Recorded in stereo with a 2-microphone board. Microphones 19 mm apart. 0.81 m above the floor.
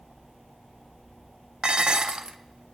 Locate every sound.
1.6 s dishes clattering: 60° right (ahead or behind), 0.6 m